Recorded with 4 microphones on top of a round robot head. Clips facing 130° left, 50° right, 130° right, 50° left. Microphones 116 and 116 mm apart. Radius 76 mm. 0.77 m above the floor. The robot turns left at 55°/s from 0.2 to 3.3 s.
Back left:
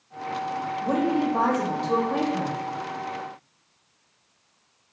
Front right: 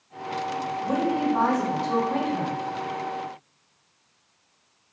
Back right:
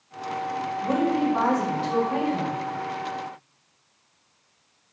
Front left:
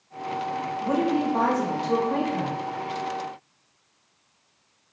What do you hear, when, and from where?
0.8 s a woman speaking: 120° left, 1.3 m; by 2.5 s 25° left, 1.3 m